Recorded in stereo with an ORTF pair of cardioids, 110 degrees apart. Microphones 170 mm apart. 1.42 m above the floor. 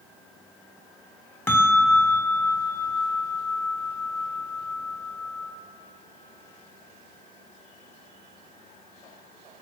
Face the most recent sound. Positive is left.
turn(degrees=15)